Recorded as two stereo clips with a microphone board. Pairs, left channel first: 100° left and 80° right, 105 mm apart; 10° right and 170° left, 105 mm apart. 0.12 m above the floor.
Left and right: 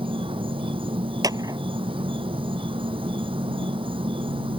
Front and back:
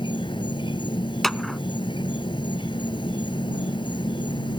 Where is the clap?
95° right.